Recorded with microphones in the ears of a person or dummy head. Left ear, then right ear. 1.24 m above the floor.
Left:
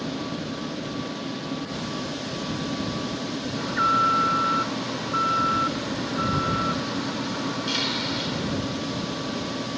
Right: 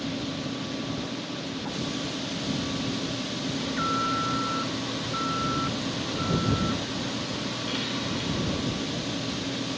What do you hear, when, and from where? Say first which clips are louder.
3.5 s an alarm: left 7 dB; 40° left (ahead or behind)